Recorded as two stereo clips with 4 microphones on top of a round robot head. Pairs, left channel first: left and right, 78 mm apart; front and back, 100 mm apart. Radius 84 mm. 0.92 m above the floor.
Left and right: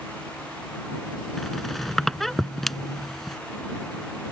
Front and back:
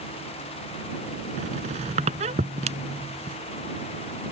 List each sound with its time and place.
1.4 s a squeak: 175° left